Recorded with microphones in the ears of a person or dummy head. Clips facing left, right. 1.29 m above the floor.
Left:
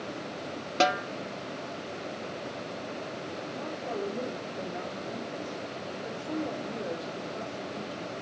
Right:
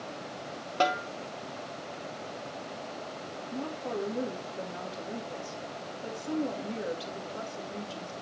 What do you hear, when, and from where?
0.8 s a snare drum: 25° left (ahead or behind), 0.9 m
3.5 s a woman speaking: 50° right (ahead or behind), 2.5 m